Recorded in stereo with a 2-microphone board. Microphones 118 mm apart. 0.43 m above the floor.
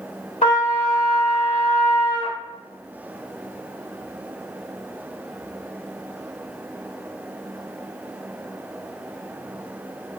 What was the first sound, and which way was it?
A trumpet, 75° left (ahead or behind).